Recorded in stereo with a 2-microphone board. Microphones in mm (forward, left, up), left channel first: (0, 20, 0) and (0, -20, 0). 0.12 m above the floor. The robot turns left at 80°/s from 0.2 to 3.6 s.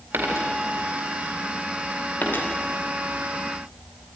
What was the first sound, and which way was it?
A dropped coin, 65° right (ahead or behind).